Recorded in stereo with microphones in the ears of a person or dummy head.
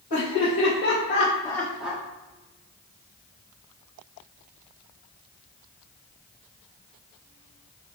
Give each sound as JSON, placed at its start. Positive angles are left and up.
{"t": 0.1, "sound": "laughter", "side_deg": 45, "distance_m": 1.5}